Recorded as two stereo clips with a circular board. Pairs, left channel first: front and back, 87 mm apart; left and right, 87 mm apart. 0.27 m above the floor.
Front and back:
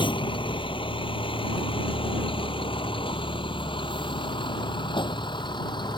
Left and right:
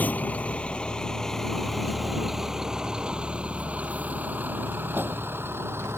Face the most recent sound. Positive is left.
turn(degrees=-30)